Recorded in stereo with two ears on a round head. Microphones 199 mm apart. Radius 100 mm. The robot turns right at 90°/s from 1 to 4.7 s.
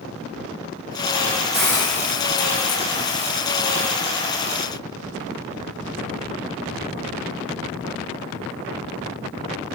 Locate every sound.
1.5 s a hiss: 5° right, 1.2 m; by 3.9 s 150° right, 1.2 m